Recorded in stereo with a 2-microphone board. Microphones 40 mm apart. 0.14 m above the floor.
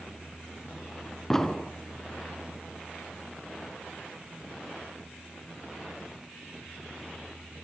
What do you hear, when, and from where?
1.3 s an explosion: 10° left (ahead or behind), 2 m